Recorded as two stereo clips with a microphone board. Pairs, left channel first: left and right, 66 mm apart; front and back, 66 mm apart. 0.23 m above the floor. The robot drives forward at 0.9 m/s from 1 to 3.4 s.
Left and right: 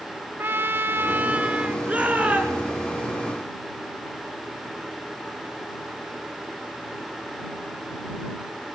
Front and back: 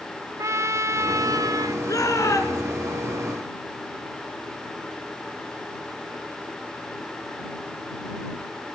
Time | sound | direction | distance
0.4 | a trumpet | 145° right | 0.5 m
1.9 | a shout | 20° right | 3.5 m